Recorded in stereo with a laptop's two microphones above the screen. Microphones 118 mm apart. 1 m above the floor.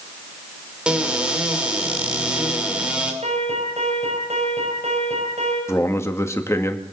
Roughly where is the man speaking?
Left.